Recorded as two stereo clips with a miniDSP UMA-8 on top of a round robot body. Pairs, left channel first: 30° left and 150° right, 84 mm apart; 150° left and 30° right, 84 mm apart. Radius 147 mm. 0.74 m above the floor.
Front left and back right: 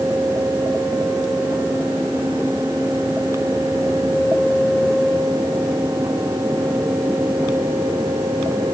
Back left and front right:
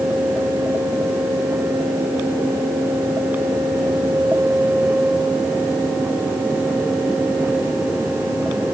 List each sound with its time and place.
Only background noise.